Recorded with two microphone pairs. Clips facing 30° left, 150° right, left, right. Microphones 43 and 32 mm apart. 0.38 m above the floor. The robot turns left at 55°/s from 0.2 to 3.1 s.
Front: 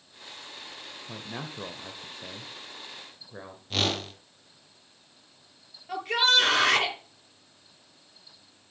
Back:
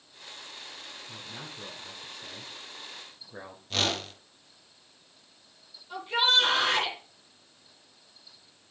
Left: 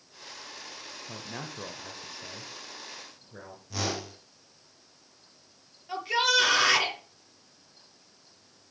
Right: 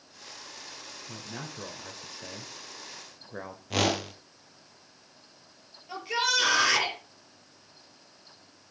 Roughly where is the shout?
Ahead.